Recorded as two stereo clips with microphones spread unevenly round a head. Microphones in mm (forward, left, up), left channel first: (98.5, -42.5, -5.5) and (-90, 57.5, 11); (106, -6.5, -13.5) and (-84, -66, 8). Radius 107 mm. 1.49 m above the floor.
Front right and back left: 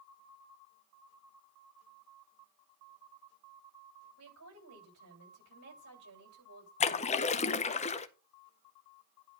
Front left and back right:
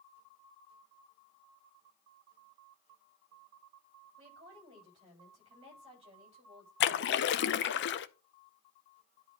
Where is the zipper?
No zipper in this recording.